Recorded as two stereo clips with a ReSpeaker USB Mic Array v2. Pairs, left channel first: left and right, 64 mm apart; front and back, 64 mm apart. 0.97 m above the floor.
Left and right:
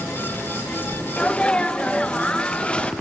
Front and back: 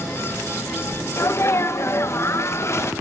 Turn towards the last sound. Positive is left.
turn(degrees=20)